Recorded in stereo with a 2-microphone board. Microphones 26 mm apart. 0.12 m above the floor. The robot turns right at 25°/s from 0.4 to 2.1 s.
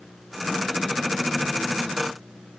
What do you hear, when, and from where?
Only background noise.